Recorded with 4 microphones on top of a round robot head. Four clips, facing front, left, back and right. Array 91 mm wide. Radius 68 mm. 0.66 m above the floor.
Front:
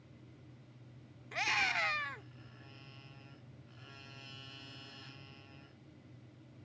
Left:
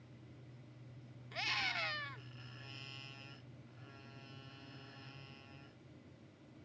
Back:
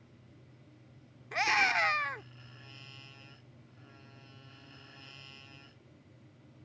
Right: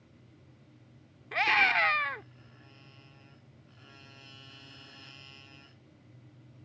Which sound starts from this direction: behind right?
A scream, at 1.3 s.